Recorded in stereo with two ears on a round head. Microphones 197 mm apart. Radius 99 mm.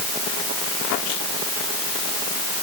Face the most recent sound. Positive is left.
No sound to turn to.